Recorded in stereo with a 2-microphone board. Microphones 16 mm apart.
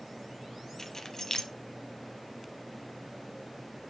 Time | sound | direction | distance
0.8 | keys jangling | 40° left (ahead or behind) | 1.0 m